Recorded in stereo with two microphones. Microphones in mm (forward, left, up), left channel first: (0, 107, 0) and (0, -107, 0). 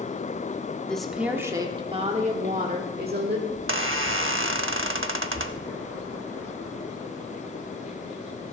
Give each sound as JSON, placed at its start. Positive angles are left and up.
{"t": 0.9, "sound": "a woman speaking", "side_deg": 5, "distance_m": 1.0}
{"t": 3.5, "sound": "a squeak", "side_deg": -70, "distance_m": 0.6}